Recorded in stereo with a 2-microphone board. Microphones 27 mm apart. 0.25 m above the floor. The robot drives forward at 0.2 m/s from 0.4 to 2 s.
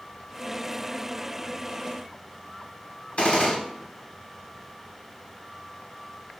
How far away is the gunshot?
About 0.7 m.